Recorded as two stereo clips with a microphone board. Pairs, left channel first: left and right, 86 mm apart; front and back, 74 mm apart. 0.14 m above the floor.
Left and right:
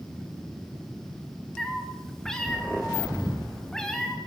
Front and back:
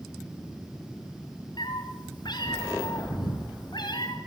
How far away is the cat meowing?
About 4.5 m.